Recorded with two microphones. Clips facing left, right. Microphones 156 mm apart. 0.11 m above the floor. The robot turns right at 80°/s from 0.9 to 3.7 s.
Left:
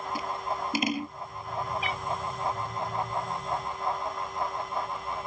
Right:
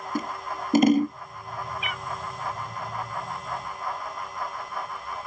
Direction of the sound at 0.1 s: 50° right (ahead or behind).